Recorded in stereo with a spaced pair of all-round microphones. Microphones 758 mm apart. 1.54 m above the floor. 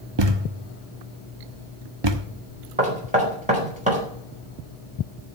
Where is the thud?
35° right (ahead or behind), 1.1 m.